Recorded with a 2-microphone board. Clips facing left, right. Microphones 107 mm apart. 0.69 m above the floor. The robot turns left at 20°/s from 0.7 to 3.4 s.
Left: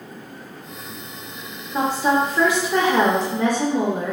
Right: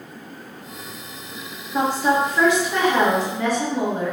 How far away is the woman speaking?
About 0.6 m.